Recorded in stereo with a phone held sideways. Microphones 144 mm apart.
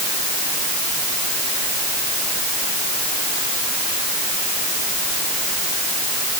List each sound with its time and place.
Only background noise.